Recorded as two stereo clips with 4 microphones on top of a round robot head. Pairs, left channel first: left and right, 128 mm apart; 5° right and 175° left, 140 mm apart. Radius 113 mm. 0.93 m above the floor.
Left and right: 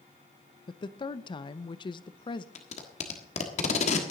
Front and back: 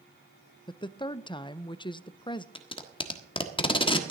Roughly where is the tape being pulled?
Ahead left.